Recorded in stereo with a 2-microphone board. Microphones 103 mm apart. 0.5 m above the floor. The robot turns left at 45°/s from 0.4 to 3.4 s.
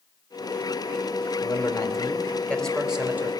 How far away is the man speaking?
About 2.5 m.